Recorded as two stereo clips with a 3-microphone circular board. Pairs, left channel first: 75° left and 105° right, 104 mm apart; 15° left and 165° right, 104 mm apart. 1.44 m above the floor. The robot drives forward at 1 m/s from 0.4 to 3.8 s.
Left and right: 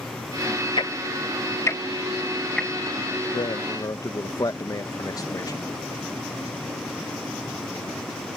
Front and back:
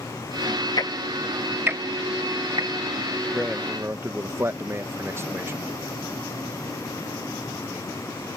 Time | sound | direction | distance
0.8 | ticking | 55° left | ?
3.3 | a man speaking | 110° left | ?